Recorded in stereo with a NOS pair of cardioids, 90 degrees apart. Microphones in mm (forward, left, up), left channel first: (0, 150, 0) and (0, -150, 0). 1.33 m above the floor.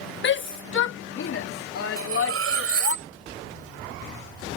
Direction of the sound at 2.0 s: 50° right.